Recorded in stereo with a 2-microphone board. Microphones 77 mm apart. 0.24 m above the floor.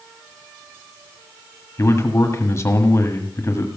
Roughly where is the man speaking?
Left.